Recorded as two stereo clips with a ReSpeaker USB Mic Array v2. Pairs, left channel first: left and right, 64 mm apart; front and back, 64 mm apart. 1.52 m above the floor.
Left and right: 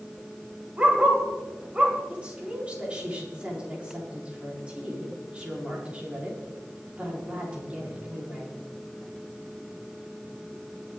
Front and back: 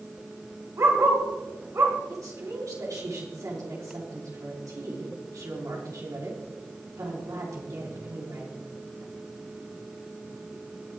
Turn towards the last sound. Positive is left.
turn(degrees=-160)